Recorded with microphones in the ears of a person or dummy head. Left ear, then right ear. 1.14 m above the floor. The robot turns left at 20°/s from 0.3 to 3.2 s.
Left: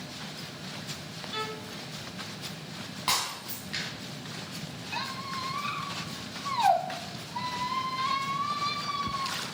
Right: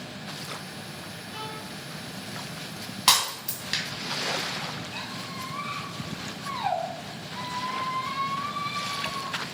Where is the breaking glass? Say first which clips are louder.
Right 7 dB; 50° right (ahead or behind), 2.5 m.